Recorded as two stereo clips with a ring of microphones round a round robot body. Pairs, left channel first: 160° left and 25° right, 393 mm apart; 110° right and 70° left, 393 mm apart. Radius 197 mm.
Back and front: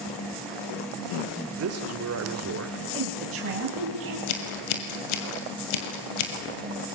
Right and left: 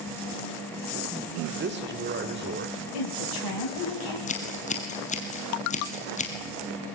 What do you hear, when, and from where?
1.6 s a man speaking: 15° left, 1.8 m
2.9 s a woman speaking: 80° right, 3 m
4.3 s scissors: 175° left, 3 m